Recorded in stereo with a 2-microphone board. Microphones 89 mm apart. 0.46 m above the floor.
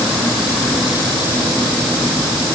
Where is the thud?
I don't hear a thud.